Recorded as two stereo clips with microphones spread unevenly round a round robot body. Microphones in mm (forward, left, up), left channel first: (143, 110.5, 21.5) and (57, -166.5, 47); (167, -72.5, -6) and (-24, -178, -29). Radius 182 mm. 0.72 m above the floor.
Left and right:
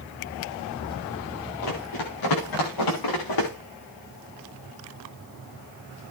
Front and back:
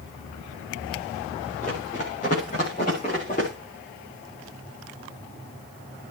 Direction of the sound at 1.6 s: 100° left.